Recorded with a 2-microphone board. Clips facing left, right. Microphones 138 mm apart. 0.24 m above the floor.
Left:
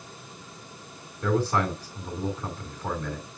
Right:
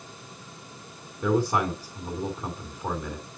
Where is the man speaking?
15° right (ahead or behind), 2.5 m.